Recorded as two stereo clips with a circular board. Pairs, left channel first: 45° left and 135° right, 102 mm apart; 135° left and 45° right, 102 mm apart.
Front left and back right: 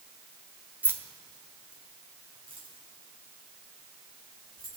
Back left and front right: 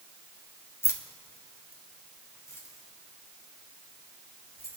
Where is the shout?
I don't hear a shout.